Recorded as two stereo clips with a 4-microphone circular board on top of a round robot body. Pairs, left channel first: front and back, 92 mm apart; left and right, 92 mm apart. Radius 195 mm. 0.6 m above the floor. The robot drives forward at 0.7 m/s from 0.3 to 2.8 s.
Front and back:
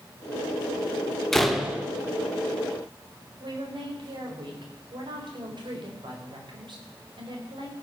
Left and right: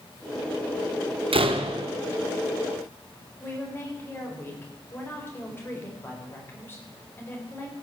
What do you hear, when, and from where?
1.3 s a door slam: 85° right, 1.3 m; by 1.9 s 105° right, 1.3 m
3.4 s a woman speaking: 155° left, 4 m